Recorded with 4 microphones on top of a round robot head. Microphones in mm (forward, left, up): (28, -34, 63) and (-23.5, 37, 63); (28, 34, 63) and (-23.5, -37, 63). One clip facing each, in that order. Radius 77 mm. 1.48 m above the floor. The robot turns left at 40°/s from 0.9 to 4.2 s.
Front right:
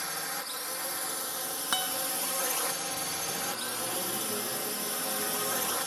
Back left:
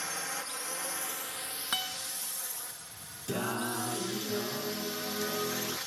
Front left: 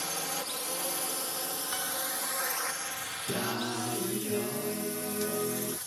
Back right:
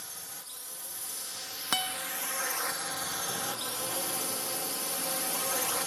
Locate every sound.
0.0 s a drone: 30° left; by 5.9 s 100° right
1.7 s a guitar: 115° right; by 2.0 s 125° right
3.3 s singing: 90° left; by 5.8 s 55° left